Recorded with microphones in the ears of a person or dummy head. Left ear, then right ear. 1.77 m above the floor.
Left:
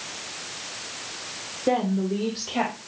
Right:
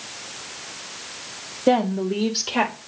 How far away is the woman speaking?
About 0.9 m.